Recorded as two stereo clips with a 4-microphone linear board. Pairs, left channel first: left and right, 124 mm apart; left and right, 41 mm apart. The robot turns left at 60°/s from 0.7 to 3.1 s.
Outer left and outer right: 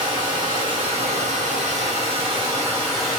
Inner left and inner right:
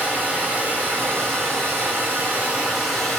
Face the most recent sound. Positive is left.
turn(degrees=175)